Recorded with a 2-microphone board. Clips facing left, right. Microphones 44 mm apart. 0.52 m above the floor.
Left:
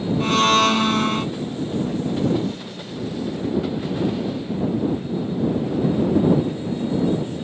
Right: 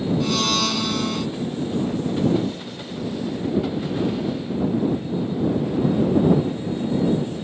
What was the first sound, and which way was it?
A blender, 40° left (ahead or behind).